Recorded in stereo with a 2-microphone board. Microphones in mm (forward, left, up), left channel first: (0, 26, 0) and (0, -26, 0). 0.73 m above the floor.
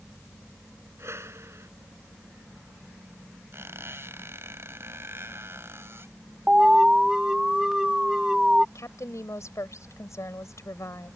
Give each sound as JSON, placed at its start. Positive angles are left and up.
{"t": 1.0, "sound": "a whoosh", "side_deg": -60}
{"t": 3.5, "sound": "a squeak", "side_deg": -55}
{"t": 6.5, "sound": "an alarm", "side_deg": -10}
{"t": 8.8, "sound": "a woman speaking", "side_deg": 80}